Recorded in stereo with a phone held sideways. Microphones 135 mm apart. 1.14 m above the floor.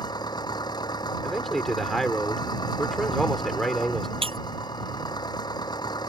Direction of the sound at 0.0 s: 30° left (ahead or behind).